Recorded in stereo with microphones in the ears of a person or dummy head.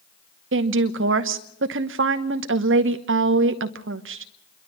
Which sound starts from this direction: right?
A woman speaking, at 0.5 s.